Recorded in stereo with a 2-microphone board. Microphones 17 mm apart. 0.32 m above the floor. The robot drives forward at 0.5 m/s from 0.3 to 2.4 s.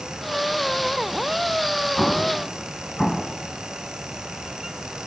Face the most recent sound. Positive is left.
turn(degrees=10)  # may be behind; listen again after turning